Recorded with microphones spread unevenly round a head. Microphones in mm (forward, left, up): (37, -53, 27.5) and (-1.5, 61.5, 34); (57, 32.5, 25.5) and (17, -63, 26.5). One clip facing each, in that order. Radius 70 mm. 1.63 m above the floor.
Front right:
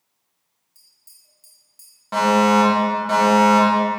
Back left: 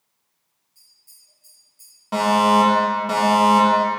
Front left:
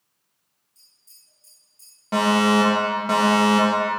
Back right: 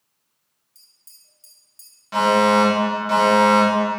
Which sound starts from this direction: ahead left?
A fire alarm, at 2.1 s.